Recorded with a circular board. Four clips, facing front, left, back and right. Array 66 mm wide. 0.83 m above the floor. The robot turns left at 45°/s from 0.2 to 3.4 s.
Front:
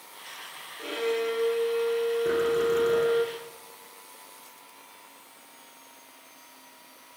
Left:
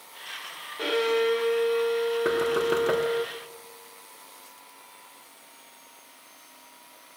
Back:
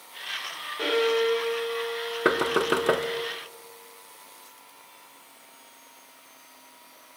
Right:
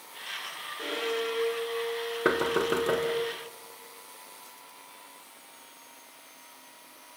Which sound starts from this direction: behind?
Knocking, at 2.2 s.